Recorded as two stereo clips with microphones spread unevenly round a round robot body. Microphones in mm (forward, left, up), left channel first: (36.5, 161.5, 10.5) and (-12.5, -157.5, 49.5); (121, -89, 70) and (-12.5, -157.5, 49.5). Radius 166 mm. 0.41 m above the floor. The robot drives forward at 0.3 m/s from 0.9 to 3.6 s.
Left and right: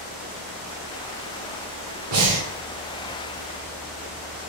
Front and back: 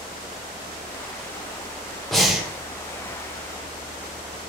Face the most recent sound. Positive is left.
turn(degrees=-110)